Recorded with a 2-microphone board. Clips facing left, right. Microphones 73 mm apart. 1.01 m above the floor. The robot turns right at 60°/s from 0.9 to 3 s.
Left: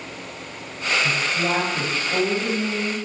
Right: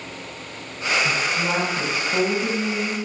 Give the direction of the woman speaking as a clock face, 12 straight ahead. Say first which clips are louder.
Even; 10 o'clock.